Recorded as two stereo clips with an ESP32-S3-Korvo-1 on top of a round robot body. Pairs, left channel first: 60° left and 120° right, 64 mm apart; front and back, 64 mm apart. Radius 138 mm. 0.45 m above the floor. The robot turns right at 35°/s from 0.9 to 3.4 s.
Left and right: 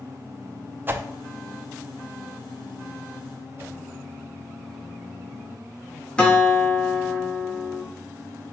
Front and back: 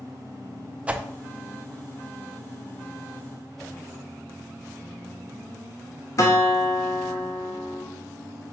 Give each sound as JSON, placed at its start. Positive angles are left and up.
{"t": 0.9, "sound": "a whoosh", "azimuth_deg": -130, "distance_m": 0.6}
{"t": 3.6, "sound": "a whoosh", "azimuth_deg": -80, "distance_m": 1.1}
{"t": 6.2, "sound": "a guitar", "azimuth_deg": -10, "distance_m": 1.0}